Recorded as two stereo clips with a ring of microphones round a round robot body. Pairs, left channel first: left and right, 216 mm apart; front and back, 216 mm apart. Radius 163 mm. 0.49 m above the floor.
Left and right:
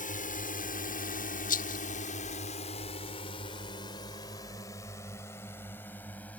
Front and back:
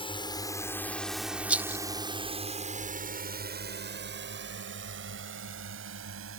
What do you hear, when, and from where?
0.0 s a drone: 55° left; by 6.4 s 175° left
1.5 s a rattle: 100° left